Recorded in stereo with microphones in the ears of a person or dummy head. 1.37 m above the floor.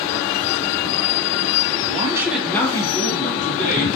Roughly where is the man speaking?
Right.